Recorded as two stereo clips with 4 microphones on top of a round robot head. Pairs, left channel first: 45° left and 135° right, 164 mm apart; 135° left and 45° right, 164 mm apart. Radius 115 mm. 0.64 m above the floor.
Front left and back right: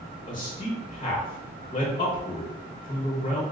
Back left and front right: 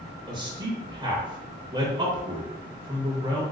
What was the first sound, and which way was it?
A man speaking, 5° left.